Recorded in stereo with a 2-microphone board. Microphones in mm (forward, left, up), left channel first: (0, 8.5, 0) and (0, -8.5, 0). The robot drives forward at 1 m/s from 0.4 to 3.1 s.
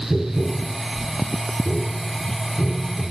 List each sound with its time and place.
0.1 s tapping: 70° left (ahead or behind), 4 m